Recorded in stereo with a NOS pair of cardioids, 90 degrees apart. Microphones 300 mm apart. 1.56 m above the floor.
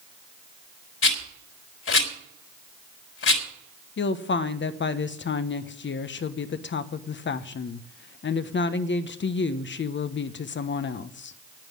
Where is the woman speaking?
40° left, 1.1 m.